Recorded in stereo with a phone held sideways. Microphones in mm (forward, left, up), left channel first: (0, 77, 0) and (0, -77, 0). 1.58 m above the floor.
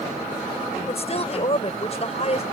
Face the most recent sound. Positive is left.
turn(degrees=45)  # may be behind; listen again after turning